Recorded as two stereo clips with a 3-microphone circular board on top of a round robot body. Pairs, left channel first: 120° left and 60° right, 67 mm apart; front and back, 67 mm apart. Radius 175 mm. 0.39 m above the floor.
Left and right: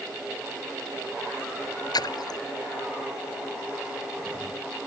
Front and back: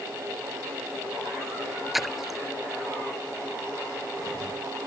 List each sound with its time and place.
1.9 s a splash: 95° left